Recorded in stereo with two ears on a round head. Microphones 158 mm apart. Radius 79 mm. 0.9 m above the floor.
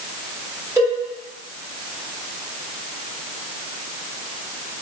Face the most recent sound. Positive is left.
turn(degrees=-15)  # may be behind; listen again after turning